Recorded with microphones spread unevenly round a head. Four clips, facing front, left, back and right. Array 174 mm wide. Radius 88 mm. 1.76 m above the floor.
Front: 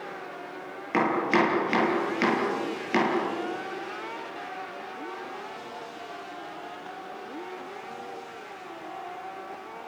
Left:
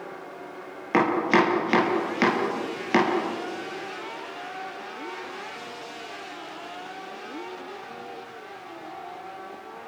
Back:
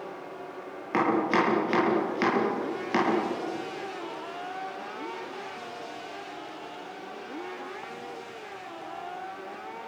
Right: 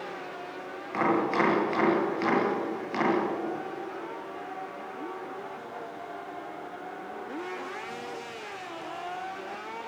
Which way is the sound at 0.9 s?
80° left.